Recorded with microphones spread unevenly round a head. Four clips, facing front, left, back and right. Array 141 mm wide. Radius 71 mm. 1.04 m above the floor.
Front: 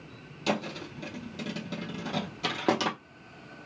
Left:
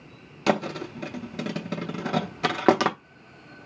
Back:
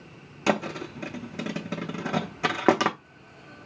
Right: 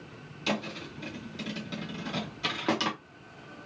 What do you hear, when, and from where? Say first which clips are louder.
0.5 s a thud: left 8 dB, back 5 dB; 120° left, 0.7 m